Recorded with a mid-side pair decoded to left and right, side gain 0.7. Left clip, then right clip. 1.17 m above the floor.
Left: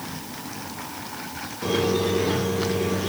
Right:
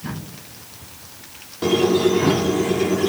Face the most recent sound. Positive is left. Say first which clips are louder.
# right 6 dB
turn(degrees=-35)